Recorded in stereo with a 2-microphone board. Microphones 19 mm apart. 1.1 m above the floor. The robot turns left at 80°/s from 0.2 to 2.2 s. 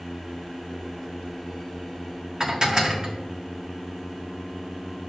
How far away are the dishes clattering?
About 1.4 m.